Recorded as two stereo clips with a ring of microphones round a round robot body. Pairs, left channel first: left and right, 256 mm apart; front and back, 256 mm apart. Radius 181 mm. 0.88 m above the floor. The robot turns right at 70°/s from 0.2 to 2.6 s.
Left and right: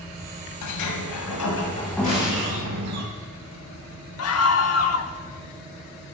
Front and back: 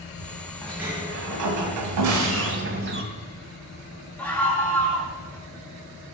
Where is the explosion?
155° left, 3.5 m; by 2.5 s 170° right, 3.5 m.